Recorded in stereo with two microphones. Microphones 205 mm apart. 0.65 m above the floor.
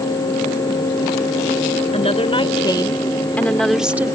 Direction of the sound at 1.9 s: 30° left (ahead or behind).